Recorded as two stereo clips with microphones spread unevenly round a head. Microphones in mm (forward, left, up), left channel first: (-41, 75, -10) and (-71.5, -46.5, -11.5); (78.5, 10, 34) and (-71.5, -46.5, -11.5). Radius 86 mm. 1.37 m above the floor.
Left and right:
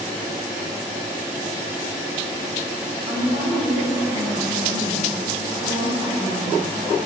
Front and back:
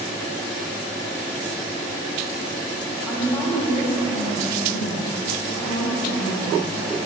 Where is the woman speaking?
70° right, 4 m; by 7.1 s 45° right, 6.5 m.